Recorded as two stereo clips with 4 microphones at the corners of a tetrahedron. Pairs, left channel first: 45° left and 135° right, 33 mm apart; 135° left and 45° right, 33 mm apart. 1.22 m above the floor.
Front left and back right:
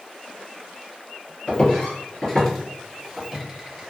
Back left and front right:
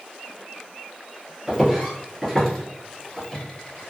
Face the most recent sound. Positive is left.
turn(degrees=170)